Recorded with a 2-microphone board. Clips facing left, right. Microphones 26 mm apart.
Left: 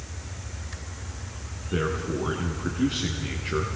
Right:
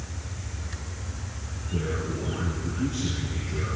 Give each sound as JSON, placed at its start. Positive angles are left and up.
{"t": 1.7, "sound": "a man speaking", "side_deg": 80, "distance_m": 3.5}